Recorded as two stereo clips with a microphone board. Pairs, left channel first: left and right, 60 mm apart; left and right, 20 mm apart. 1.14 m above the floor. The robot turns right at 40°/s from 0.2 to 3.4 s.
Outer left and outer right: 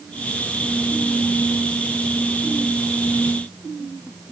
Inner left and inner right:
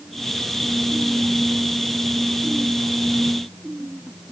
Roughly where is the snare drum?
I don't hear a snare drum.